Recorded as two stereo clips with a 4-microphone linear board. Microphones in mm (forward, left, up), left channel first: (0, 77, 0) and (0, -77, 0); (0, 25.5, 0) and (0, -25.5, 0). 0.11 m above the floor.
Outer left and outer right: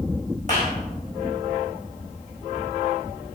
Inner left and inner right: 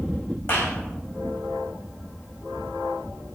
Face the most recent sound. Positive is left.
turn(degrees=50)  # may be behind; listen again after turning